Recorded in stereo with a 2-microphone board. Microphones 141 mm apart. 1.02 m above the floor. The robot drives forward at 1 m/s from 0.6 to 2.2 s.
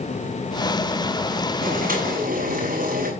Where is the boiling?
75° right (ahead or behind), 7 m.